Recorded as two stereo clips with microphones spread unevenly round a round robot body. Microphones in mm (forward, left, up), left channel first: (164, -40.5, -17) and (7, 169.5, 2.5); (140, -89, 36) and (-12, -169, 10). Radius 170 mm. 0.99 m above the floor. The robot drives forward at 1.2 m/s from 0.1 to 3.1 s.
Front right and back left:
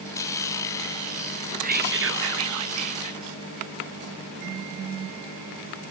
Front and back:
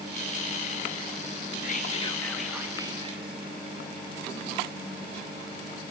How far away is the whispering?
About 1.2 m.